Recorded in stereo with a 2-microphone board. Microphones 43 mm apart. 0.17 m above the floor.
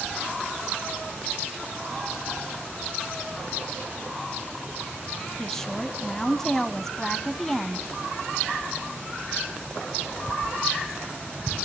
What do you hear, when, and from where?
5.4 s a woman speaking: 10° left (ahead or behind), 1.1 m